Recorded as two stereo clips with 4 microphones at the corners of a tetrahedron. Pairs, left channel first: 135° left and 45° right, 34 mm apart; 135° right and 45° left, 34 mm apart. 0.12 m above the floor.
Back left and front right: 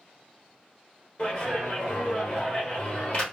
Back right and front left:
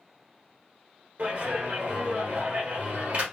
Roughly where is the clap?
Left.